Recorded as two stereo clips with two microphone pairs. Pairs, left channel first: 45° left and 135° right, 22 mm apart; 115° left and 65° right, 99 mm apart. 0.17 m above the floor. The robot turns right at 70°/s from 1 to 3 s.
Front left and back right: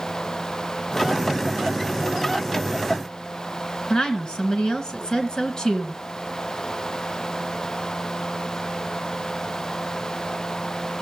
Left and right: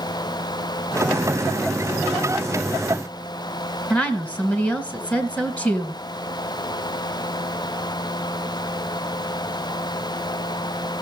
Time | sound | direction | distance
3.9 | a woman speaking | 45° left | 1.7 m